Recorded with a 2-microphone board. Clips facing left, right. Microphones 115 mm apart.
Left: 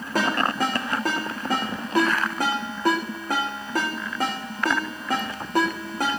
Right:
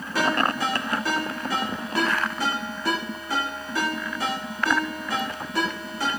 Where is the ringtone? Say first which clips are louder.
Even; 45° left (ahead or behind), 6.5 m.